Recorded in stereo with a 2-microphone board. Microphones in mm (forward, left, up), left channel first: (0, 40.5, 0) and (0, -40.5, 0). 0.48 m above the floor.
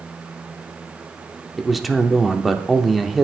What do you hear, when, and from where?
1.6 s a man speaking: centre (ahead or behind), 0.7 m